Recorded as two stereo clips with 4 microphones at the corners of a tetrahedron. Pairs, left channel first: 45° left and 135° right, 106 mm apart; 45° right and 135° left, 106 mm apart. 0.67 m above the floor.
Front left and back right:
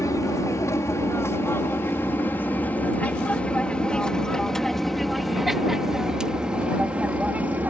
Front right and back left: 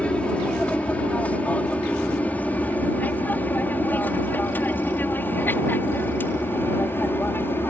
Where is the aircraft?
25° left; by 7.7 s 85° right.